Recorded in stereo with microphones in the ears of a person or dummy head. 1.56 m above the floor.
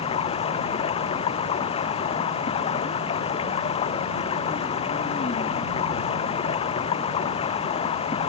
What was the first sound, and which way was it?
Running water, 35° left (ahead or behind).